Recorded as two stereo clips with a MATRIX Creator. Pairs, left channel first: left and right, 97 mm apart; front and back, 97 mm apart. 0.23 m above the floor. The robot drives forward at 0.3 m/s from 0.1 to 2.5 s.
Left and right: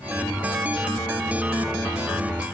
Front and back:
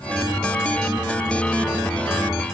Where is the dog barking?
No dog barking in this recording.